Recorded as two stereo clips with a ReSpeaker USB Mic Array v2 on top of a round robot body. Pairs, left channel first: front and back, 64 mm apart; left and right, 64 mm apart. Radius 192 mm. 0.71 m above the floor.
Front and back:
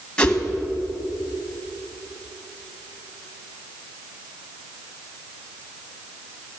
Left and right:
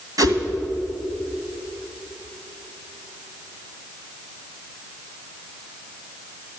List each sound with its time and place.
0.2 s a whoosh: 80° right, 2 m